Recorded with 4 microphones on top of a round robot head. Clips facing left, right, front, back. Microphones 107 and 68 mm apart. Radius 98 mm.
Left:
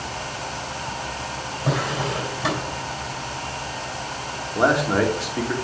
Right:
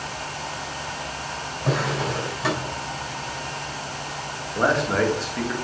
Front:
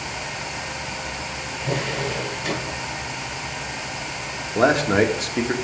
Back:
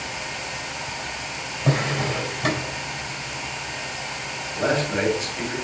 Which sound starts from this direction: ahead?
A man speaking, at 4.5 s.